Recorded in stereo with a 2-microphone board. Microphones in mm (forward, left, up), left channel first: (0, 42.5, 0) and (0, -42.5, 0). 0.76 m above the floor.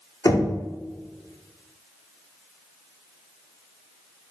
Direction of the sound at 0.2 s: 50° left (ahead or behind).